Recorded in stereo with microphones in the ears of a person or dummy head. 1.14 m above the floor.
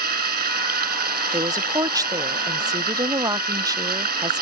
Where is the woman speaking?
15° right (ahead or behind).